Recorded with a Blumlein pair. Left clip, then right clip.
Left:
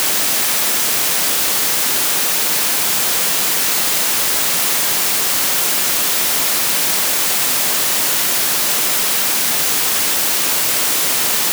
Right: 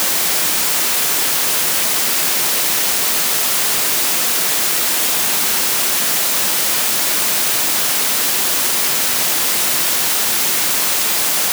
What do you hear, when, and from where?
Only background noise.